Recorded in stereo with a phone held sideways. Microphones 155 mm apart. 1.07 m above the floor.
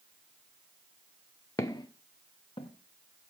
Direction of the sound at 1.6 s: 20° left (ahead or behind).